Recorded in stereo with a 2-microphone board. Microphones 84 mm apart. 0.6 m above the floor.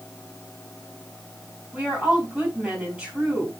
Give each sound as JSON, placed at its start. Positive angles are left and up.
{"t": 1.7, "sound": "a woman speaking", "side_deg": -10, "distance_m": 5.0}